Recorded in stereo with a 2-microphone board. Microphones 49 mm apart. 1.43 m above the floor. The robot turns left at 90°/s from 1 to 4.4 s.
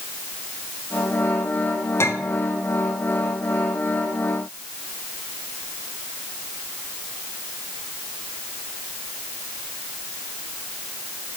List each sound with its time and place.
2.0 s a clink: 55° left (ahead or behind), 1.8 m; by 2.4 s 70° left (ahead or behind), 1.8 m